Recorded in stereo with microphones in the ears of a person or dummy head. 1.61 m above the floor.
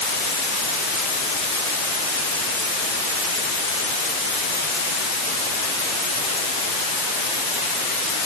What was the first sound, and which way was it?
Only background noise.